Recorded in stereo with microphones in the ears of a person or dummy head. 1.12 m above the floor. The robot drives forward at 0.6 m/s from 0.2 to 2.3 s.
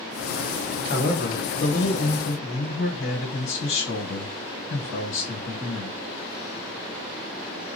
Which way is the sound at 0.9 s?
50° left (ahead or behind).